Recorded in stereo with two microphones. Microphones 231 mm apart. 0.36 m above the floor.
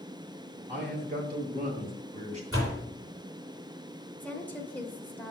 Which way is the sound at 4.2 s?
5° left (ahead or behind).